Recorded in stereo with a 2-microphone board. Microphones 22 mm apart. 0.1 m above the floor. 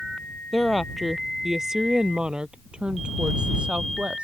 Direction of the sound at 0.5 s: 5° left (ahead or behind).